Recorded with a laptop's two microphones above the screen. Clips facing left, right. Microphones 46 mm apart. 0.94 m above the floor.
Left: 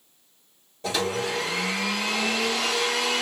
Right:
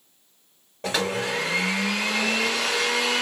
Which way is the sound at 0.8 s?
45° right (ahead or behind).